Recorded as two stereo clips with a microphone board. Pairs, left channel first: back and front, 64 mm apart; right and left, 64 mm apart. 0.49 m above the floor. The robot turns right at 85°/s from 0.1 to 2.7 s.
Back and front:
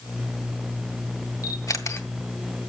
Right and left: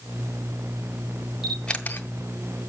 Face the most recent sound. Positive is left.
turn(degrees=-80)